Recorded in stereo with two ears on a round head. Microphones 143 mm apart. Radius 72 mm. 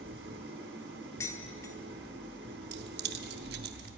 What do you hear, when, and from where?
0.0 s an engine running: 85° right, 2.5 m
1.2 s dishes clattering: 20° left (ahead or behind), 1.0 m
2.7 s keys jangling: 75° right (ahead or behind), 0.8 m